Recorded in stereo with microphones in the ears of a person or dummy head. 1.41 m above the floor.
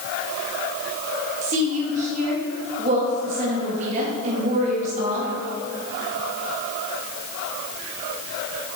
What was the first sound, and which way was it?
A woman speaking, 35° right (ahead or behind).